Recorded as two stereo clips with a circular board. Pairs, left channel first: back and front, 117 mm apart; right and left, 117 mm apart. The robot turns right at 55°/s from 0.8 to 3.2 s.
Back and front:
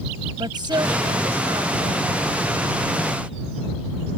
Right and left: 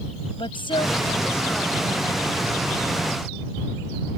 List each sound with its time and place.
0.4 s a woman speaking: 50° right; by 2.3 s 35° left